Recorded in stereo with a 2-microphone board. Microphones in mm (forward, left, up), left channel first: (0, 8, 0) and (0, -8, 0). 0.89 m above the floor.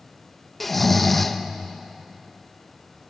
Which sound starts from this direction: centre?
Snoring, at 0.6 s.